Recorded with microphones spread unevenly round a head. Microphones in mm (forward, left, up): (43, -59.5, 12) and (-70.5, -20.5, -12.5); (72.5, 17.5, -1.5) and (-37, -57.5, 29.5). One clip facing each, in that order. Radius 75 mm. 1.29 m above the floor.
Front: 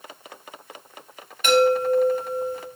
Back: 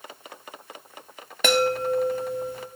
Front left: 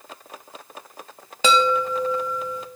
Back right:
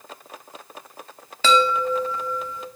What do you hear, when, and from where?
1.4 s a chime: 115° left, 0.8 m